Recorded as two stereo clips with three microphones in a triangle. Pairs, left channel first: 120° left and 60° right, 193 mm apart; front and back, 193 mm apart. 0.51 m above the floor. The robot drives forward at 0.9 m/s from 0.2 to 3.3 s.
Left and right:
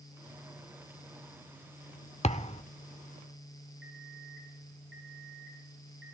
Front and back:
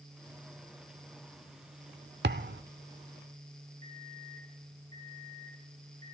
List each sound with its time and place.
2.2 s a thud: 175° left, 0.6 m
3.8 s an alarm clock: 70° right, 6 m